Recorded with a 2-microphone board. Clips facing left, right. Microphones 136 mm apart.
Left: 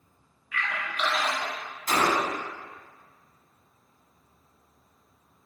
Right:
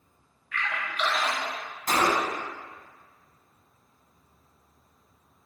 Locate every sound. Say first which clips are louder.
0.5 s a splash: even; 10° left (ahead or behind), 1.1 m
1.9 s a gunshot: even; 45° right (ahead or behind), 0.7 m